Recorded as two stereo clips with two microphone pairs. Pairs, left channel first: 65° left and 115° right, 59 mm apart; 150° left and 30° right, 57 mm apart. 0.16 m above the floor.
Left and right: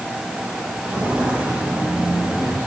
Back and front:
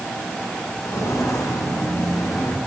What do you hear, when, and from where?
0.8 s footsteps: straight behind, 6.5 m; by 2.6 s 170° left, 6.5 m